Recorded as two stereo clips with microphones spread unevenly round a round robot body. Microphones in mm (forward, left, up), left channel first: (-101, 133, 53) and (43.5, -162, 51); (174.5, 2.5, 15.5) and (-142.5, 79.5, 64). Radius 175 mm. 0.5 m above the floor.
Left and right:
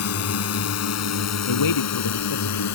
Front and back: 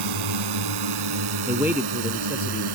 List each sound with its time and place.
0.0 s a drone: 160° left; by 2.8 s 155° left
1.5 s a man speaking: 80° left